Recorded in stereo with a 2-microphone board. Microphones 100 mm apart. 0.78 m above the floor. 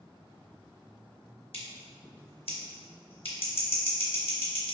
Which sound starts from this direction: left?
Scissors, at 1.5 s.